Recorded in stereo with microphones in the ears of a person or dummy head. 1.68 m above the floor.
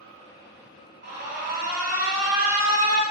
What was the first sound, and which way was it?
An alarm, 55° right (ahead or behind).